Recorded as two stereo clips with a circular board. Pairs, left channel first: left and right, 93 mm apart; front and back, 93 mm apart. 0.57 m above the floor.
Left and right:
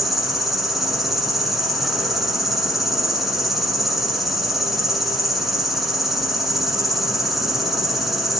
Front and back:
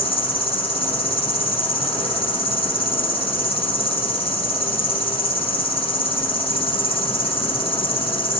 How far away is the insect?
About 5.5 m.